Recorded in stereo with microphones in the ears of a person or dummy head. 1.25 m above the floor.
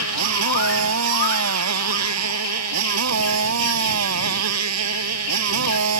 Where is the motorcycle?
85° right.